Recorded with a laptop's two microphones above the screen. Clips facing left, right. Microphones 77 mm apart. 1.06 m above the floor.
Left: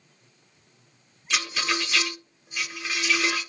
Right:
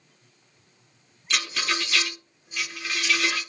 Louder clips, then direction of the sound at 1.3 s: Left 1 dB; 5° left (ahead or behind).